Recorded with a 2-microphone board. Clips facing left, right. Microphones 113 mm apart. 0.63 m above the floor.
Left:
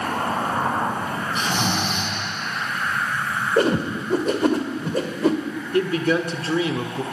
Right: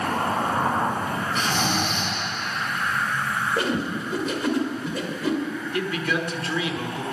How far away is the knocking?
No knocking in this recording.